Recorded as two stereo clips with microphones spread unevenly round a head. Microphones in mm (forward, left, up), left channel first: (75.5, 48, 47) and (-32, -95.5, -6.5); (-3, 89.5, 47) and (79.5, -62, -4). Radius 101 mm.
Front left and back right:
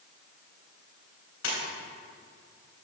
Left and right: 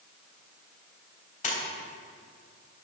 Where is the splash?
75° left, 3.5 m.